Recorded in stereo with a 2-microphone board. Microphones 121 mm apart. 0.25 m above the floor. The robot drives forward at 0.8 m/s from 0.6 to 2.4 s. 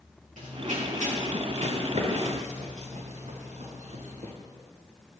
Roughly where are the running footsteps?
Right.